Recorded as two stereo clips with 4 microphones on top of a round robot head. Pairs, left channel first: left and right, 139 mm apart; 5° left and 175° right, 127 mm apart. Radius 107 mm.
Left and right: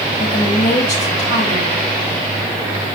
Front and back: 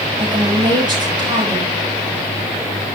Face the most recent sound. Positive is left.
turn(degrees=130)